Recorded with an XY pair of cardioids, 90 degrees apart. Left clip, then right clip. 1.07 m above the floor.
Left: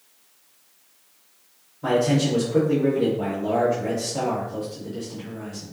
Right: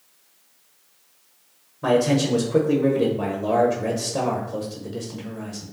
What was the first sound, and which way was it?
A man speaking, 65° right.